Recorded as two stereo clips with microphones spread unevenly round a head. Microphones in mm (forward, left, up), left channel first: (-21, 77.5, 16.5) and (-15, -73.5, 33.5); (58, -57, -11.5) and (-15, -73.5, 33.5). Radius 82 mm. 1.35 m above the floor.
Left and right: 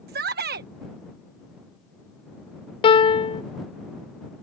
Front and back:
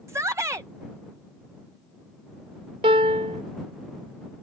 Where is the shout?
105° right.